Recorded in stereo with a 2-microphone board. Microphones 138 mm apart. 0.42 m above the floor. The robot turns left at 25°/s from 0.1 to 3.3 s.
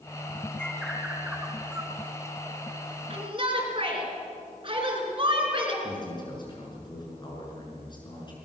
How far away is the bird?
About 2.5 m.